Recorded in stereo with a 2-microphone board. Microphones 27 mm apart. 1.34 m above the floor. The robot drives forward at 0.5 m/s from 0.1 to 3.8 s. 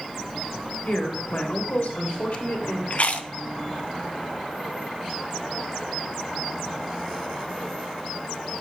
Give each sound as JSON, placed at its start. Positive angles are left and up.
{"t": 0.8, "sound": "a woman speaking", "side_deg": 60, "distance_m": 3.0}
{"t": 2.9, "sound": "chewing", "side_deg": 55, "distance_m": 0.6}